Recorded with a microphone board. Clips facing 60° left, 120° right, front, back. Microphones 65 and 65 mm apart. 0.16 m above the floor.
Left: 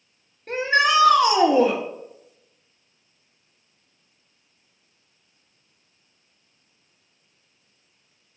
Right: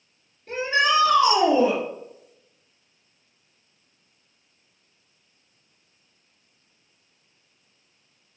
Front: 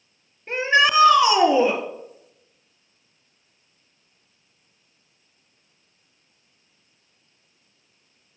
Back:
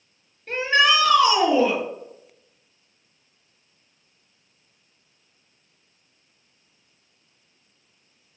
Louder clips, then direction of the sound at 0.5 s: Left 2 dB, front 1 dB; 70° left.